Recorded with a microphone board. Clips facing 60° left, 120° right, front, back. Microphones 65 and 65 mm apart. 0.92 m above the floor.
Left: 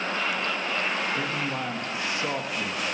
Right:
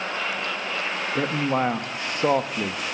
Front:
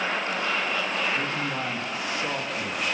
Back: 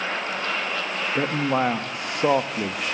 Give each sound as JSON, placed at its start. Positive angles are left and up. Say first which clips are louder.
{"t": 1.1, "sound": "a man speaking", "louder": "right 6 dB, back 6 dB", "azimuth_deg": -155, "distance_m": 1.3}